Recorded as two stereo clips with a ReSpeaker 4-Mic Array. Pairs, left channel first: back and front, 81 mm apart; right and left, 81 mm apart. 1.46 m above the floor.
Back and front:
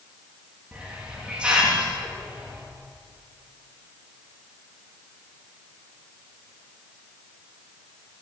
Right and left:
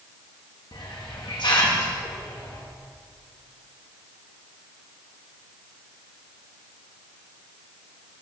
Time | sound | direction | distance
0.7 | a hiss | 75° right | 3 m